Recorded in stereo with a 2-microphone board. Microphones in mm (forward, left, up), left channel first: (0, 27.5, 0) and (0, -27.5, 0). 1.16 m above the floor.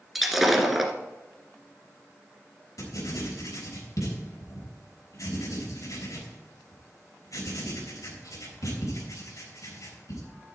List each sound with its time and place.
0.1 s breaking glass: 5° right (ahead or behind), 1.6 m
2.8 s writing: 75° left (ahead or behind), 3.5 m